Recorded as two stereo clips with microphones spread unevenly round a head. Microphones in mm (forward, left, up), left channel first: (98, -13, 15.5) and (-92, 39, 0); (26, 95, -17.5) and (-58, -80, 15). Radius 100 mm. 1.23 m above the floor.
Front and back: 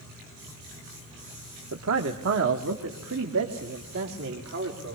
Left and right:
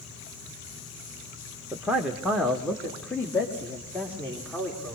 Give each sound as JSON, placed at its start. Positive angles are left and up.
{"t": 1.7, "sound": "a man speaking", "azimuth_deg": 160, "distance_m": 1.2}